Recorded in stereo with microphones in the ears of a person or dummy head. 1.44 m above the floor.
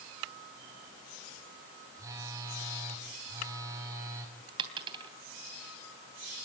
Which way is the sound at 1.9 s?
25° right (ahead or behind).